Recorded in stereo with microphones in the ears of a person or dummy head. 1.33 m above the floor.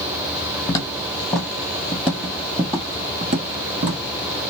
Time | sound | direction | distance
0.7 | footsteps | 25° left (ahead or behind) | 1.6 m